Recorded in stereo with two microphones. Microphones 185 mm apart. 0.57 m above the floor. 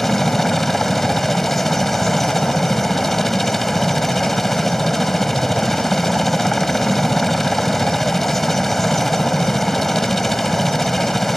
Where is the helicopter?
Centre (ahead or behind).